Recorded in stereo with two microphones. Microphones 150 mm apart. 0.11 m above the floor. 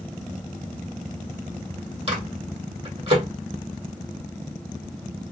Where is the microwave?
40° right (ahead or behind), 2.5 m.